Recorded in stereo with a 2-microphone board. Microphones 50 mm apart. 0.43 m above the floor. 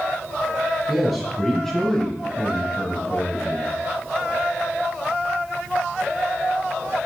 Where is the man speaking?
Centre (ahead or behind), 3 m; by 3.7 s 65° left (ahead or behind), 1.7 m.